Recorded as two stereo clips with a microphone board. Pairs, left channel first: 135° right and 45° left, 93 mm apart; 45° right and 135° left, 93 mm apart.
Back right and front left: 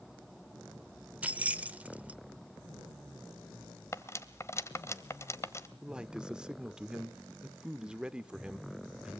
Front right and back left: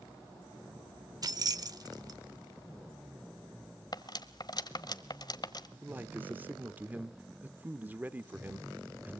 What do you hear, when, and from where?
1.2 s keys jangling: 115° left, 0.7 m
3.9 s cutlery clinking: 80° right, 1.1 m
5.8 s a man speaking: 110° left, 0.8 m